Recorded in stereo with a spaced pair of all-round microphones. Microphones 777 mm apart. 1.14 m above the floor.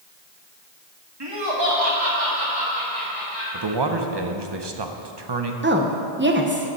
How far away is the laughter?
About 1.8 m.